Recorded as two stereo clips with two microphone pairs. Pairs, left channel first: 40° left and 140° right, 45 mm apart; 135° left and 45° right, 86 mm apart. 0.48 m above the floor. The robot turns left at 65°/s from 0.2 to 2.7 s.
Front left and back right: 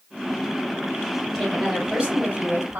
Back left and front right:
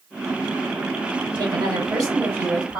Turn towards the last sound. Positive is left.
turn(degrees=-115)